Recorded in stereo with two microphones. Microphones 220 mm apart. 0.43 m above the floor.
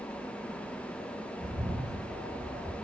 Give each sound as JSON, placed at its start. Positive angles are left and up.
{"t": 1.4, "sound": "a bird", "side_deg": -20, "distance_m": 0.9}